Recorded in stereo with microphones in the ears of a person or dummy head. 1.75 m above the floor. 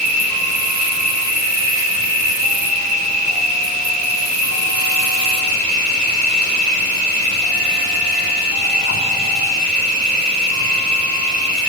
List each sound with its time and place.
0.0 s an insect: 60° right (ahead or behind), 7 m